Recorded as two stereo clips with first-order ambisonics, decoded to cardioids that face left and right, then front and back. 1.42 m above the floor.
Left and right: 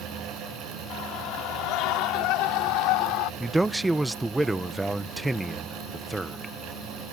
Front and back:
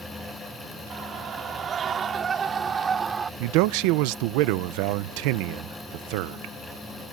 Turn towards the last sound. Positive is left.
turn(degrees=-175)